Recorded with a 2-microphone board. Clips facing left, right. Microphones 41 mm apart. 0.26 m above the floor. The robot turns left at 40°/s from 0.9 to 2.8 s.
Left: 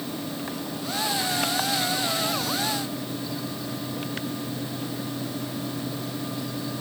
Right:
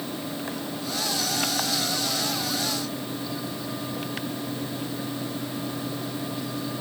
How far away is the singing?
I don't hear singing.